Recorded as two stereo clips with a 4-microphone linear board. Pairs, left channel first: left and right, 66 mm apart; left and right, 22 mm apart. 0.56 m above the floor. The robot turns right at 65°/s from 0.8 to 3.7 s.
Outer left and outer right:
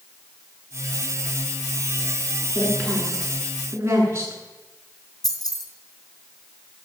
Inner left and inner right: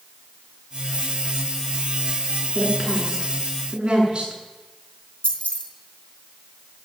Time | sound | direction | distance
2.5 | a woman speaking | 35° left (ahead or behind) | 7.5 m
5.2 | keys jangling | 75° left (ahead or behind) | 3.5 m